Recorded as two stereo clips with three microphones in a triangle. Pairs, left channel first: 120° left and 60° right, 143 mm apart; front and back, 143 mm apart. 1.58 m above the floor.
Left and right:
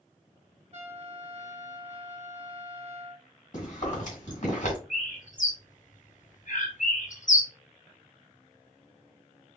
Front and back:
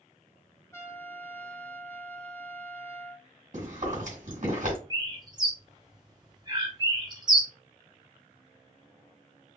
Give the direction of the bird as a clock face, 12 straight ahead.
8 o'clock.